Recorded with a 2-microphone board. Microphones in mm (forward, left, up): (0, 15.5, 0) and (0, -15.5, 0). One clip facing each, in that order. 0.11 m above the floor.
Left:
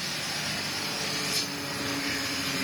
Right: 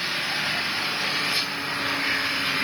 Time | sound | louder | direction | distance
0.0 | an engine running | right 7 dB | 30° right (ahead or behind) | ?